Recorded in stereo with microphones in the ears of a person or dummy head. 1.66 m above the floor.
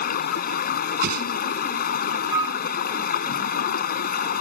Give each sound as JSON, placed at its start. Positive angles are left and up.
{"t": 0.0, "sound": "running water", "side_deg": 65}
{"t": 1.0, "sound": "a whoosh", "side_deg": -60}
{"t": 2.3, "sound": "a flute", "side_deg": -25}